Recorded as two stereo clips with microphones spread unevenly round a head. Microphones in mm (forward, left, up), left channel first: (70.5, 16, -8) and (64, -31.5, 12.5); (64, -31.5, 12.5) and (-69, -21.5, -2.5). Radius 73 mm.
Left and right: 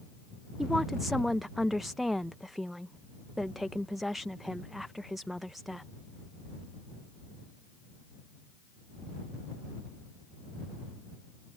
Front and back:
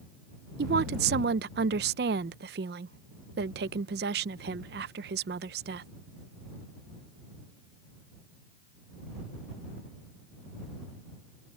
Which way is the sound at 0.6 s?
175° left.